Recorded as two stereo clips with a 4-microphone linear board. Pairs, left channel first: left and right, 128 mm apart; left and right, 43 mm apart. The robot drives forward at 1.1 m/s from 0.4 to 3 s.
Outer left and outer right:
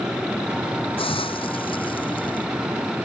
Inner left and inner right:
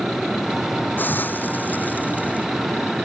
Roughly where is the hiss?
Left.